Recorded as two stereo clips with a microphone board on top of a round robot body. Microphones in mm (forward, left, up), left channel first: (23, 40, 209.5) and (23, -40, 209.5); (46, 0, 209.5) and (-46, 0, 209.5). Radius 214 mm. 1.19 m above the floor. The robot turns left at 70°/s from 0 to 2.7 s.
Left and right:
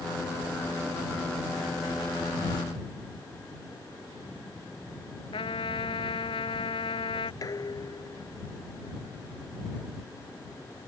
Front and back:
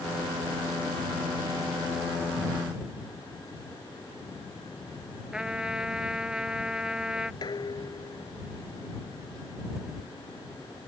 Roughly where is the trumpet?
Left.